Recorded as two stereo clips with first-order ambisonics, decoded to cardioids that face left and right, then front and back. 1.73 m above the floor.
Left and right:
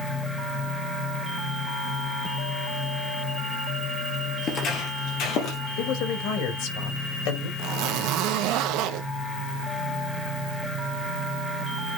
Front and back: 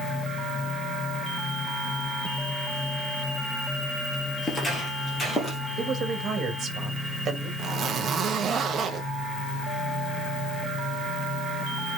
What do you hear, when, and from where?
4.4 s footsteps: 65° left, 2 m; by 5.6 s 75° left, 3 m
5.8 s a man speaking: 115° left, 3.5 m
7.6 s a zipper: 115° right, 1.1 m